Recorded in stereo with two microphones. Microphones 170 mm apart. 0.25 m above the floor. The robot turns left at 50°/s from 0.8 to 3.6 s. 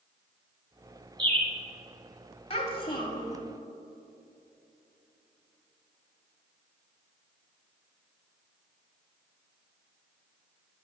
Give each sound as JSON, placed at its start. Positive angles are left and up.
{"t": 1.2, "sound": "a bird", "side_deg": -30, "distance_m": 1.3}
{"t": 2.5, "sound": "a child speaking", "azimuth_deg": 85, "distance_m": 1.1}